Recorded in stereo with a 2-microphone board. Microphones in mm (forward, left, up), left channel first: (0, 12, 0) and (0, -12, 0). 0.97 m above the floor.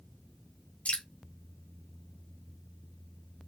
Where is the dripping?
65° left (ahead or behind), 1.4 m.